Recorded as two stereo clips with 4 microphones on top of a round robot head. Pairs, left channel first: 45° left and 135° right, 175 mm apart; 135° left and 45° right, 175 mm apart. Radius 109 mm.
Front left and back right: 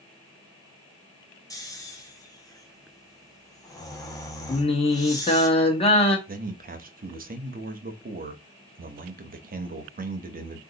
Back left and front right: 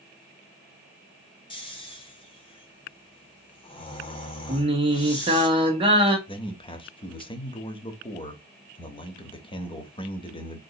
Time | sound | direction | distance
1.5 | snoring | 100° left | 1.2 m
4.5 | singing | straight ahead | 1.1 m
6.3 | a man speaking | 165° right | 0.9 m